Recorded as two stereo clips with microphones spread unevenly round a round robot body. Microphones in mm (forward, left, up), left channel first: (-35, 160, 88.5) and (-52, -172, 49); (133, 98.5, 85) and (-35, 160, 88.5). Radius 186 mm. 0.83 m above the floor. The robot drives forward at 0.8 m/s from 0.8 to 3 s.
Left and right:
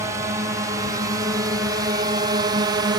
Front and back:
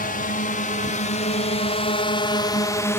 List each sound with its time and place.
0.0 s a drone: 20° right; by 3.0 s 70° right